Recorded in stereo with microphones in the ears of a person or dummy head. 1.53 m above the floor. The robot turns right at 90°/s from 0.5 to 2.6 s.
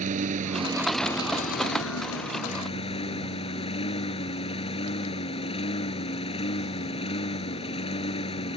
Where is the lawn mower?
40° right; by 8.6 s 150° left.